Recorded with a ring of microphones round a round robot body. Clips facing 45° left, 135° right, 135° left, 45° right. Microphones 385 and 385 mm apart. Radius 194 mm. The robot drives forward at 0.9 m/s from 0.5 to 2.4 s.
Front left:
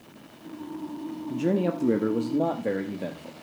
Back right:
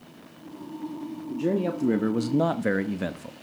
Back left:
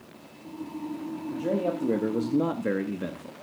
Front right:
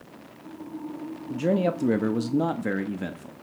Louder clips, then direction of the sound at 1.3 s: Front left 1 dB, front right 4 dB; 30° right.